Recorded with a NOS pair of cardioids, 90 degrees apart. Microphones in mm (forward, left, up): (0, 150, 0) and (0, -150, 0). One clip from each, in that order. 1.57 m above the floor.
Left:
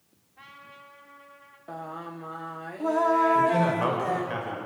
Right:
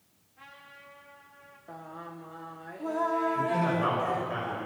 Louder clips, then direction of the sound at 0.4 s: Left 3 dB; 40° left.